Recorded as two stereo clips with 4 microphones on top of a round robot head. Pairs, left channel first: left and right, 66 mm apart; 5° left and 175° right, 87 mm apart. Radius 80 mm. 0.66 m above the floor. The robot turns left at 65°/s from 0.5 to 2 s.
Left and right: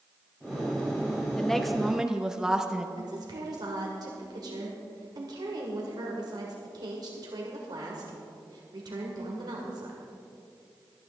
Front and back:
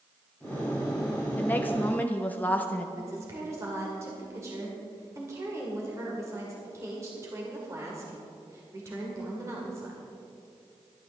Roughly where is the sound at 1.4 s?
Ahead left.